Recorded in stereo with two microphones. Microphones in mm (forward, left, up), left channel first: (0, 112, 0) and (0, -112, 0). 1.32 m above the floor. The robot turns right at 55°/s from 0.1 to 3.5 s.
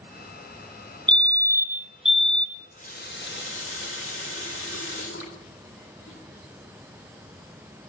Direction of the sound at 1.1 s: 20° right (ahead or behind).